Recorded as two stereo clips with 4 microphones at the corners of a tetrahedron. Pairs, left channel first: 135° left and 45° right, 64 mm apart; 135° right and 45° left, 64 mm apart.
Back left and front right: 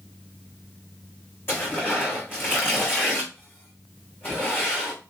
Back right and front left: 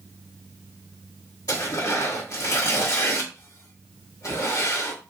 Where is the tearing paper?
170° right, 3.5 m.